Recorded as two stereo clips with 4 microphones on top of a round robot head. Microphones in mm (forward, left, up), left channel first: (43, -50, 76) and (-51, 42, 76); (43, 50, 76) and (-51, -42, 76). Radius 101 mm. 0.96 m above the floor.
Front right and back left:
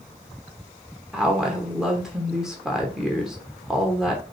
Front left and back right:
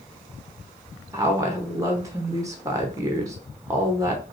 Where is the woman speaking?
140° right, 0.8 m.